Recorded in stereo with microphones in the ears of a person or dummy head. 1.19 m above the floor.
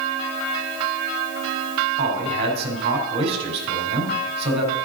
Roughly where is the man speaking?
Right.